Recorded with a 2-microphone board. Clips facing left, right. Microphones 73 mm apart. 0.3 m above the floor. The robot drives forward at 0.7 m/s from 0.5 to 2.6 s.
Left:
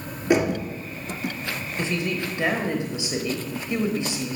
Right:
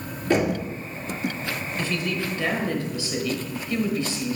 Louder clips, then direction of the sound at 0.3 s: Left 1 dB; 15° left (ahead or behind).